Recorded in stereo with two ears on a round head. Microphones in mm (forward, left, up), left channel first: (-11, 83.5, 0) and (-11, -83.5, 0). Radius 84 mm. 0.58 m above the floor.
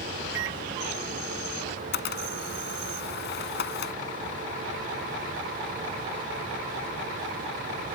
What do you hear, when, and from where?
0.3 s a microwave: 70° right (ahead or behind)
1.7 s a camera shutter: 65° left (ahead or behind)